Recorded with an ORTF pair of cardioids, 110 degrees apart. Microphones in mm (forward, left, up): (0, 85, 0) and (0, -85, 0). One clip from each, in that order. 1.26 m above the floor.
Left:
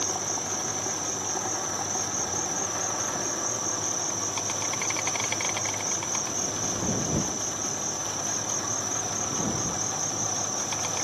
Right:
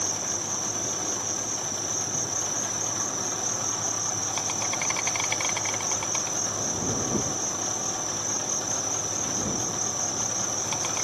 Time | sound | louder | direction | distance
0.0 | an insect | even | 10° right | ?